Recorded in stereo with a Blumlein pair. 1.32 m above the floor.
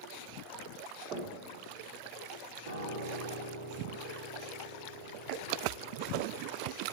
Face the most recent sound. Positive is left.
turn(degrees=-65)